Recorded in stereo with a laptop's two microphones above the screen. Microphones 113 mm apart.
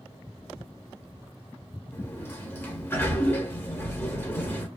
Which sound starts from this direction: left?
A sliding door, at 1.9 s.